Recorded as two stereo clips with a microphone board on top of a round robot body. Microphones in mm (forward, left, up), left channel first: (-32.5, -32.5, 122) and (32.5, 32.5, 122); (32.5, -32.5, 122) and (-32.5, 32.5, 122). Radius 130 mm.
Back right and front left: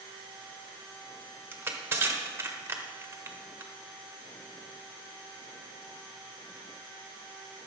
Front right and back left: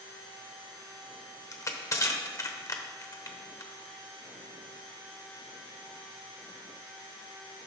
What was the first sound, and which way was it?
Crushing, 10° right.